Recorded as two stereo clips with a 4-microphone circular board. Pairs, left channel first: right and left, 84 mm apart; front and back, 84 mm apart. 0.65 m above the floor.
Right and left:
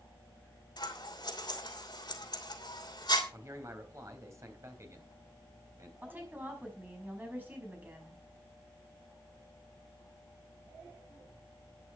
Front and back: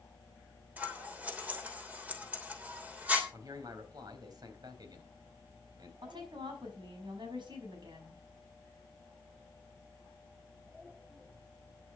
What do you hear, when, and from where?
0.8 s scissors: 110° right, 3 m
3.3 s a man speaking: 140° left, 3.5 m
6.0 s a woman speaking: 155° left, 5.5 m